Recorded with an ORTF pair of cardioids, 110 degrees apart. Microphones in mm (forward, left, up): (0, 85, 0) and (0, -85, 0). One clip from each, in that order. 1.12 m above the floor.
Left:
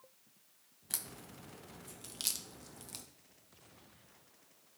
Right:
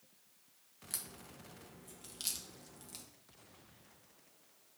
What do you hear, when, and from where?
0.9 s a crack: 20° left, 0.6 m